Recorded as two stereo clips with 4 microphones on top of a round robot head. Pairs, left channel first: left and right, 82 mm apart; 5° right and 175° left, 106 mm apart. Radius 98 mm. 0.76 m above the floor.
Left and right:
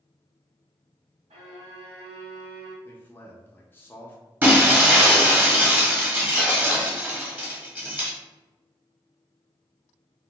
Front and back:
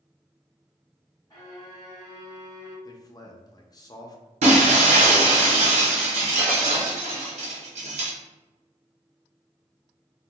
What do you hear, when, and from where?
1.3 s a violin: 75° right, 1.0 m
2.9 s a man speaking: 35° left, 0.7 m
4.4 s breaking glass: 160° right, 1.3 m